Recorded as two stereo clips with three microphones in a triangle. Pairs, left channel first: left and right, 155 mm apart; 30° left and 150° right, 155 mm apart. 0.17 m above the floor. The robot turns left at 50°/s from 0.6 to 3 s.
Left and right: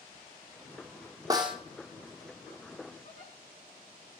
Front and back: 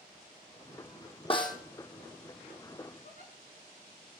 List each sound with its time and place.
1.3 s a snare drum: 25° right, 2 m; by 1.6 s 40° right, 2 m
3.0 s a giggle: 50° left, 7.5 m